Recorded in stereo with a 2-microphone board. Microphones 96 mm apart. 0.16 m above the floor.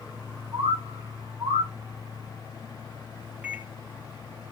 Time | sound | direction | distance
0.5 | a bird | 50° right (ahead or behind) | 9 m
3.4 | a microwave | 15° right (ahead or behind) | 2.5 m